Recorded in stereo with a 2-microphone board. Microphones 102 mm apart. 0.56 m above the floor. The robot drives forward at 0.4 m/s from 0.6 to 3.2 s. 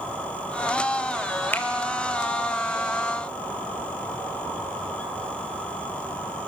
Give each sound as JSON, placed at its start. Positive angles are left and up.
{"t": 1.5, "sound": "a finger snap", "side_deg": 20, "distance_m": 1.9}